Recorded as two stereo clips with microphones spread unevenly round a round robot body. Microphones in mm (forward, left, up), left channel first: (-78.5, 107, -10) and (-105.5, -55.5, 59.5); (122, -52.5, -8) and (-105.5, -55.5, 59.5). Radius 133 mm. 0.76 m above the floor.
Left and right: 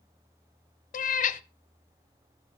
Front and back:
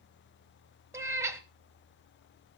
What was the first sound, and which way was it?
A cat meowing, 130° left.